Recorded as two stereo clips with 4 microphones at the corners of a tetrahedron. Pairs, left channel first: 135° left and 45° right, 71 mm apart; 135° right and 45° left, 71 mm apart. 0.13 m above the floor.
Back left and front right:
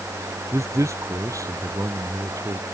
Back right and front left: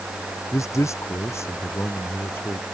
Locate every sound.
0.5 s a man speaking: 90° right; by 2.6 s 80° right